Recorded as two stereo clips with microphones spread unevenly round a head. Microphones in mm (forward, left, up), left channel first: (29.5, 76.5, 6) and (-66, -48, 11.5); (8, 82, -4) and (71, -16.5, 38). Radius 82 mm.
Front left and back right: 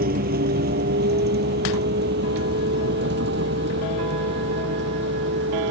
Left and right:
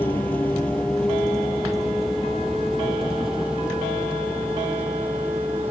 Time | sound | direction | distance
0.0 | a vehicle | 160° right | ?